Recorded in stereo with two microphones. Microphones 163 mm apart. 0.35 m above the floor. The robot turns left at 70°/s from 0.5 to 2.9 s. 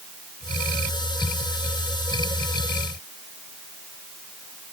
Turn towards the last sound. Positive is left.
No sound to turn to.